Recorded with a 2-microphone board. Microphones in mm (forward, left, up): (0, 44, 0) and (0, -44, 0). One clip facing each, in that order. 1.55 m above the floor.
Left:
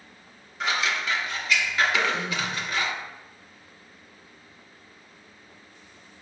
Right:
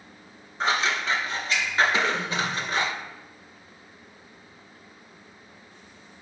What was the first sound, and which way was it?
Scissors, 30° right (ahead or behind).